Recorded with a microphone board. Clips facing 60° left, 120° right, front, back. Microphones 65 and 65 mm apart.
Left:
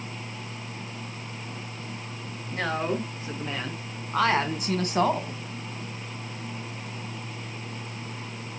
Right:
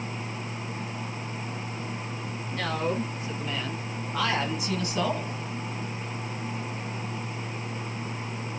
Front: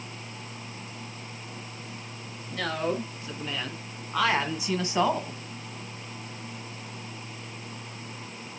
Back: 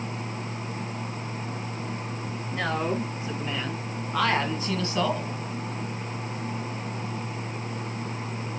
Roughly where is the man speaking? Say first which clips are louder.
Left 1 dB, back 1 dB; left.